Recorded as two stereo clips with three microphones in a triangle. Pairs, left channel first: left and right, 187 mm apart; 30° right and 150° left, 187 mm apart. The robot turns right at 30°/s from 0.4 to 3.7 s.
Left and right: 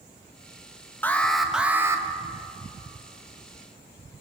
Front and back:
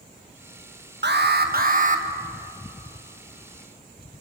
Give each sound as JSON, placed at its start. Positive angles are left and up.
{"t": 1.0, "sound": "an alarm", "azimuth_deg": 170, "distance_m": 1.0}